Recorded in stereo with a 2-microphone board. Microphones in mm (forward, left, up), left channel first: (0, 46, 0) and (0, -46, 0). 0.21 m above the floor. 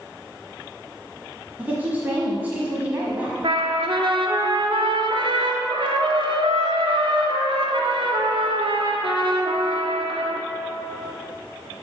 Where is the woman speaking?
20° right (ahead or behind), 1.1 m.